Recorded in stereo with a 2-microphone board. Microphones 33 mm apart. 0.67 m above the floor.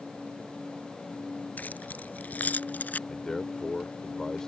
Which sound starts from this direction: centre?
A man speaking, at 3.1 s.